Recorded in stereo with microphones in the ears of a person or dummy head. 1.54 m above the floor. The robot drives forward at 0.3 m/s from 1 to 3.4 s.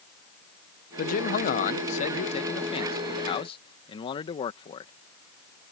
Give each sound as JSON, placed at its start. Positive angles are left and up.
{"t": 1.0, "sound": "a man speaking", "side_deg": 50}